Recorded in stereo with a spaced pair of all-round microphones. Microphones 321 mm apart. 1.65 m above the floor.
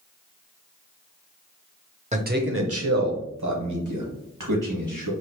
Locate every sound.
2.1 s a man speaking: 20° right (ahead or behind), 0.6 m; by 5.1 s 75° right (ahead or behind), 2.5 m